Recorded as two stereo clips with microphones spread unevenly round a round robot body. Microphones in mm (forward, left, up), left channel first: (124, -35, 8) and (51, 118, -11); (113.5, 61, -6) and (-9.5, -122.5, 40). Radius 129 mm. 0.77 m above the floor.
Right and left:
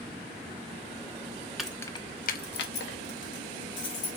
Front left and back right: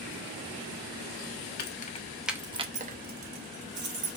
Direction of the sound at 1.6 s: 30° left.